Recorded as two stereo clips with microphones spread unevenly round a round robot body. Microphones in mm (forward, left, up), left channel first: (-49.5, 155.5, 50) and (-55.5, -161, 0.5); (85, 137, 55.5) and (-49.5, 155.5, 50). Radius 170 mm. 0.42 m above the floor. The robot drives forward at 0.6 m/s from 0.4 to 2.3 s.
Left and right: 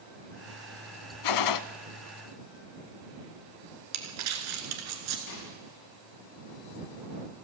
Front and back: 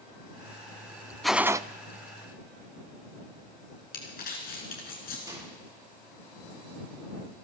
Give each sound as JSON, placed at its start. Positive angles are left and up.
{"t": 1.2, "sound": "a gunshot", "azimuth_deg": 80, "distance_m": 0.5}
{"t": 3.9, "sound": "crumpling", "azimuth_deg": -45, "distance_m": 1.6}
{"t": 5.3, "sound": "a microwave", "azimuth_deg": 110, "distance_m": 9.0}